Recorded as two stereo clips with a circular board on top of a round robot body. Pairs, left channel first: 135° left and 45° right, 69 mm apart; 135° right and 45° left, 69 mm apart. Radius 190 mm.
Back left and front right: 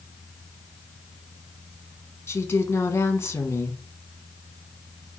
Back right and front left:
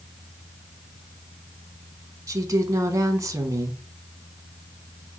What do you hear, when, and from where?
2.3 s a woman speaking: 80° left, 1.0 m